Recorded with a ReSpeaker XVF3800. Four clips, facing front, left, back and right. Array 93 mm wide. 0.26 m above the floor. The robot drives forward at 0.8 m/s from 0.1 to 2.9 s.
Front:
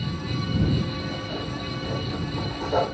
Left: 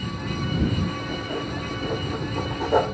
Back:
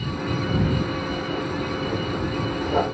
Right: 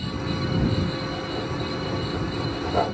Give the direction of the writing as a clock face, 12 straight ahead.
9 o'clock.